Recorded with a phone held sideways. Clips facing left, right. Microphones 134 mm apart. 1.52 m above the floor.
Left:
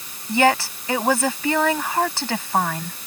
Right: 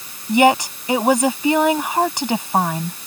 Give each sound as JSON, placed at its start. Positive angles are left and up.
{"t": 0.3, "sound": "a woman speaking", "side_deg": -20}